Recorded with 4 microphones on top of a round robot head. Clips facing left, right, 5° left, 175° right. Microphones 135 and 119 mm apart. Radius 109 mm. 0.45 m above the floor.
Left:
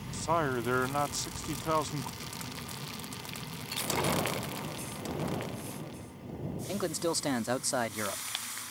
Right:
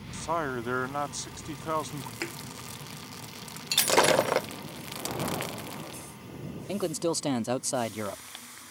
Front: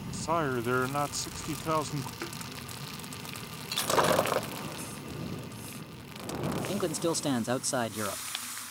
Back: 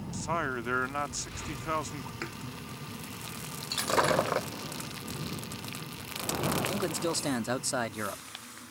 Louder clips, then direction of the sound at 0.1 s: Left 1 dB, front 4 dB; 5° left.